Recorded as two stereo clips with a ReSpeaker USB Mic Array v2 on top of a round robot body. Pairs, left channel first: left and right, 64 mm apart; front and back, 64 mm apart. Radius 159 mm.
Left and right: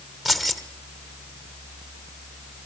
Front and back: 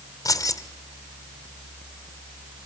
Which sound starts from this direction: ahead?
Keys jangling, at 0.2 s.